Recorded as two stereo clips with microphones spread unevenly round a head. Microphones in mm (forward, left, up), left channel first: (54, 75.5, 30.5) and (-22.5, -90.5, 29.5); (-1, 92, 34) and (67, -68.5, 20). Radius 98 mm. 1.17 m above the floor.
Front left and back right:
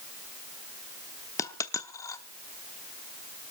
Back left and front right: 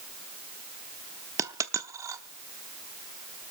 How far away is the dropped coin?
About 0.8 m.